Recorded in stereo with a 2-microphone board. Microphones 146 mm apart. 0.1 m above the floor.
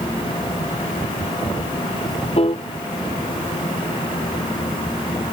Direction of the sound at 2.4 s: 40° left (ahead or behind).